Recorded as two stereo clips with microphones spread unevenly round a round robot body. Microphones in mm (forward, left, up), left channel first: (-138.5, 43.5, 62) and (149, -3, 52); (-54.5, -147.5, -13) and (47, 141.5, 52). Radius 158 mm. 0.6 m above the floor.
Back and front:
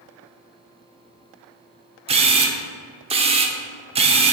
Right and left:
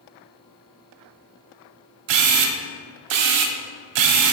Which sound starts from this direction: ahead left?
A camera shutter, at 2.1 s.